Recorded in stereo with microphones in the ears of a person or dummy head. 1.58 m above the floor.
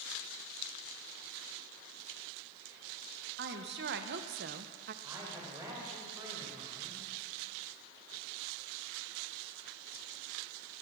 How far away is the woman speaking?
About 1.4 m.